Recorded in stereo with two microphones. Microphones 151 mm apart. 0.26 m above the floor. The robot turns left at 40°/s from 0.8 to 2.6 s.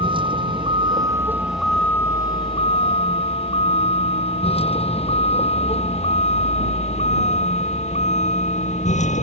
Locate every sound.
0.0 s a vehicle: 35° right (ahead or behind); by 9.2 s 55° left (ahead or behind)